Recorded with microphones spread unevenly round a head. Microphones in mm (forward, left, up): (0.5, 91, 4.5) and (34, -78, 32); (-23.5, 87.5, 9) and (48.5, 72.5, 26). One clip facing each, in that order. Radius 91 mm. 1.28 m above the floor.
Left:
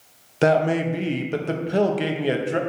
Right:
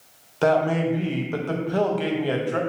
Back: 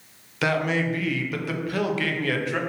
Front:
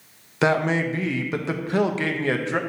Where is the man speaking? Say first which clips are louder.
Left 1 dB, front 3 dB; 55° left, 0.8 m.